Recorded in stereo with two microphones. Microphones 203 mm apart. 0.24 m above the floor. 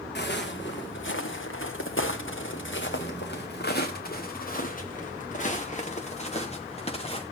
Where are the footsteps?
55° left (ahead or behind), 1.5 m; by 7.2 s 30° left (ahead or behind), 3.5 m.